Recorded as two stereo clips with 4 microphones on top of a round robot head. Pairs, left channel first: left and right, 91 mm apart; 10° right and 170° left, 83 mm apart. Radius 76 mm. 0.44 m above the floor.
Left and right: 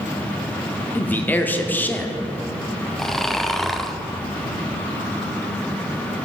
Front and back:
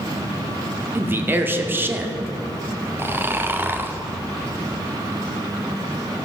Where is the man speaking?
140° left, 0.8 m.